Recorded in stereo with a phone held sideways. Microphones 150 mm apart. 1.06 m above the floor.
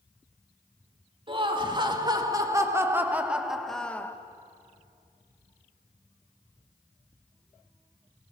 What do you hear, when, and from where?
1.3 s laughter: 35° right (ahead or behind), 2.5 m; by 4.2 s 15° left (ahead or behind), 1.3 m